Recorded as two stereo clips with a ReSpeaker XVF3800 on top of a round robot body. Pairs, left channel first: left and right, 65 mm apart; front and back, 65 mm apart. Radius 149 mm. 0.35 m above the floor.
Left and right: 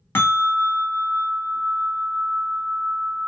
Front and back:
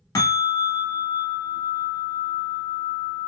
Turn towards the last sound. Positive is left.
turn(degrees=30)